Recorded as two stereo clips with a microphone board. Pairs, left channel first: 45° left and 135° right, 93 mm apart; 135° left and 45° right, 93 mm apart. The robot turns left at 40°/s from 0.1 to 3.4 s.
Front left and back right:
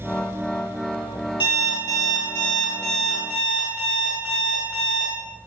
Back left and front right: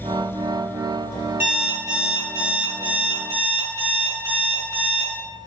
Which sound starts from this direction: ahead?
An alarm clock, at 1.4 s.